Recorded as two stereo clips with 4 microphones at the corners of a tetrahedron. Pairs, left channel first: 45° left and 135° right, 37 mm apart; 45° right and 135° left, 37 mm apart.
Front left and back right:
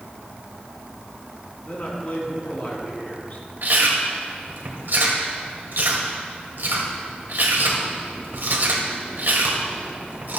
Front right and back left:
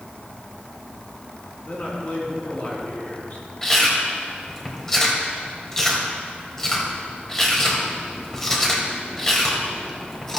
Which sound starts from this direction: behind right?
Chewing, at 3.6 s.